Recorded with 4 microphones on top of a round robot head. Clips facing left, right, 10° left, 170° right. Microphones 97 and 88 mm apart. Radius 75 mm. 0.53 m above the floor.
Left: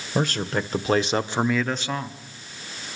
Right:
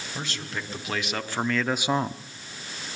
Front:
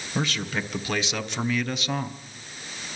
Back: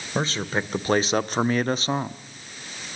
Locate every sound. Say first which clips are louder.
0.1 s a man speaking: left 11 dB, back 3 dB; 135° left, 1.9 m; by 2.2 s 105° right, 0.8 m